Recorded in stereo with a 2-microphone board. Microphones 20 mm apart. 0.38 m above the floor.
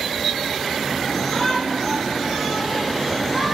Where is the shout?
20° left (ahead or behind), 10 m; by 3.5 s 5° left (ahead or behind), 10.5 m.